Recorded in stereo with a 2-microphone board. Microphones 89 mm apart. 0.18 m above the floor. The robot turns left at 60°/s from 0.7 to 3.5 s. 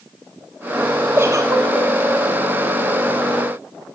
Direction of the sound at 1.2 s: 25° right.